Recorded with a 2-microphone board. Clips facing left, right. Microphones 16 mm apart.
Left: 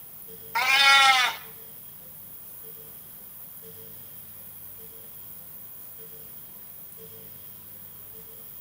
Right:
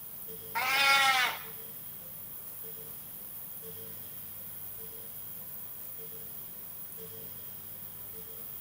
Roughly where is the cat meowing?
Left.